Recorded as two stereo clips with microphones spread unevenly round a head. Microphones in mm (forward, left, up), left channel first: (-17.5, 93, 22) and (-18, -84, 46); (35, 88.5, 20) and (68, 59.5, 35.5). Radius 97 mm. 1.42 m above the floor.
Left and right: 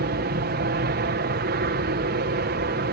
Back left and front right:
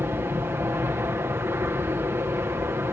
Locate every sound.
0.0 s an aircraft: 85° right